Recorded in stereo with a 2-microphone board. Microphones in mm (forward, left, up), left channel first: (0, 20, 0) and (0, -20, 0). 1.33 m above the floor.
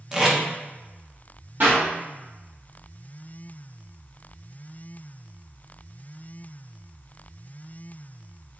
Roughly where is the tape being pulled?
Centre.